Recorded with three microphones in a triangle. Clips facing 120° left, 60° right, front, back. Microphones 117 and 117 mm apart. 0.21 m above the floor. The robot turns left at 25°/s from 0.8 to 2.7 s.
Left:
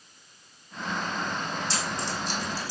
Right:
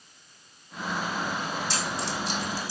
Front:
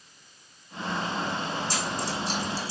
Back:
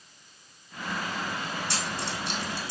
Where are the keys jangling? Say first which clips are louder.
Right 1 dB, front 3 dB; 170° left, 6 m; by 2.7 s 145° left, 6 m.